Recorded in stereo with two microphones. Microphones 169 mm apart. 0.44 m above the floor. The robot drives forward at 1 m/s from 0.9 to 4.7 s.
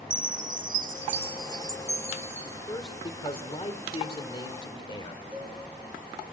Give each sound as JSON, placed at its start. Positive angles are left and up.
{"t": 0.1, "sound": "a chime", "side_deg": -50, "distance_m": 0.6}
{"t": 2.7, "sound": "a man speaking", "side_deg": 30, "distance_m": 1.8}
{"t": 5.3, "sound": "a cowbell", "side_deg": -10, "distance_m": 6.0}